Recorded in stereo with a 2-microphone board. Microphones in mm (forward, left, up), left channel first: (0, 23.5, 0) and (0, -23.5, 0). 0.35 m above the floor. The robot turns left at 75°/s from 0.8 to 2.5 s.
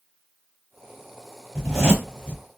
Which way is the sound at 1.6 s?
10° left (ahead or behind).